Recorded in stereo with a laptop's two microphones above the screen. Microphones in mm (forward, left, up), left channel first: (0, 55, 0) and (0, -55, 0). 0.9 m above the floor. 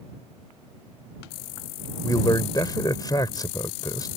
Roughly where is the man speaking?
Left.